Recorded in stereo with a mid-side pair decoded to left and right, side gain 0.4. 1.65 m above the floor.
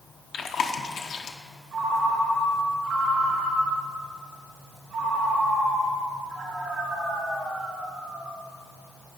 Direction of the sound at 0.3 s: 65° left.